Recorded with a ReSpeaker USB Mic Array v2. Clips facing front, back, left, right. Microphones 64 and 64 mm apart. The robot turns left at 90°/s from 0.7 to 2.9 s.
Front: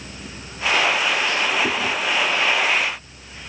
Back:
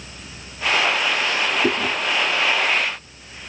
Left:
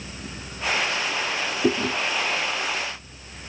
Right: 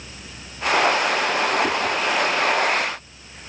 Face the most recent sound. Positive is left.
turn(degrees=25)